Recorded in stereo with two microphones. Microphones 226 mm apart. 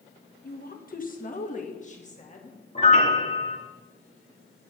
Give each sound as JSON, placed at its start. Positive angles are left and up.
{"t": 0.4, "sound": "a woman speaking", "side_deg": 45, "distance_m": 1.3}
{"t": 2.8, "sound": "a piano", "side_deg": 30, "distance_m": 1.8}